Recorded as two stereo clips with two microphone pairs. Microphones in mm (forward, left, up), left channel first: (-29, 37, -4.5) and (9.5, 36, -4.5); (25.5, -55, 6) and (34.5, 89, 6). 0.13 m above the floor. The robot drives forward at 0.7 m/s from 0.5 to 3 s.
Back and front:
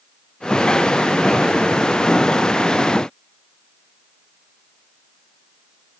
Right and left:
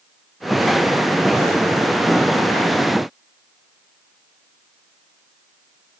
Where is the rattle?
I don't hear a rattle.